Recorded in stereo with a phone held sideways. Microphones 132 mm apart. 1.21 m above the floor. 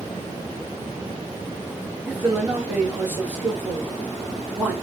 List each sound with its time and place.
2.1 s a man speaking: 10° right (ahead or behind), 1.5 m